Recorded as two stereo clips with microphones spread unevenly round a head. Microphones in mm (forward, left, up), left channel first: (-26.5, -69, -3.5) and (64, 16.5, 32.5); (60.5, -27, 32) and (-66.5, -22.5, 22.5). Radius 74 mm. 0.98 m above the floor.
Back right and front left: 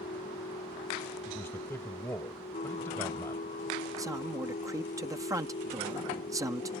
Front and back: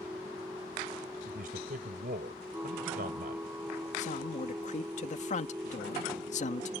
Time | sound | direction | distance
0.0 | a machine running | 105° right | ?
1.2 | a man speaking | 145° left | ?
4.0 | a man speaking | 25° right | ?